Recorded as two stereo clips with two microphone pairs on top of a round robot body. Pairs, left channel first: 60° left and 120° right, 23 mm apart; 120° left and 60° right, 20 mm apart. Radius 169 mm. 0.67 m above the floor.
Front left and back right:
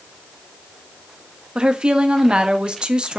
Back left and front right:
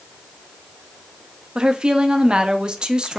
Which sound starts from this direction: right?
A woman speaking, at 1.6 s.